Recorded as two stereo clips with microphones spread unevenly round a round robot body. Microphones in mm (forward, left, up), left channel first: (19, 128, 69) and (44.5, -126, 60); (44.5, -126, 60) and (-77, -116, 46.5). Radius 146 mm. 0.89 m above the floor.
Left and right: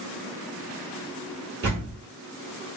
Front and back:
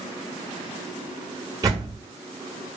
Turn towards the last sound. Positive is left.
turn(degrees=-120)